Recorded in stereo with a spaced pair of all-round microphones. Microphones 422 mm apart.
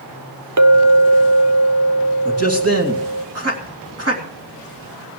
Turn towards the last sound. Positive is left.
turn(degrees=-35)  # may be behind; listen again after turning